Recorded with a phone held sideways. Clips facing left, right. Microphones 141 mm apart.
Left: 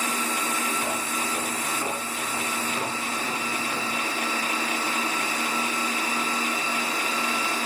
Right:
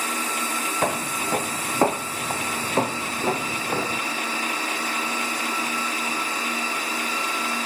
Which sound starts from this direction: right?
Footsteps, at 0.8 s.